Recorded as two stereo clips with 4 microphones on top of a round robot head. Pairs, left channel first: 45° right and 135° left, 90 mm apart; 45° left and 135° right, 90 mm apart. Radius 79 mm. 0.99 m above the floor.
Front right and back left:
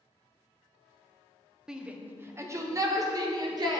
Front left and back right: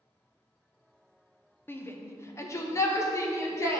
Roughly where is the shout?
Ahead left.